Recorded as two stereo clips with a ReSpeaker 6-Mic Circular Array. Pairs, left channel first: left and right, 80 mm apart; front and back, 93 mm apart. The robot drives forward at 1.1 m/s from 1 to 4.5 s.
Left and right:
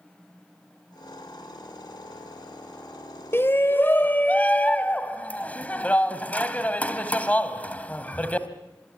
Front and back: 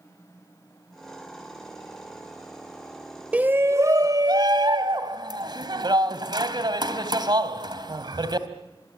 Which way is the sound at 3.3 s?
115° left.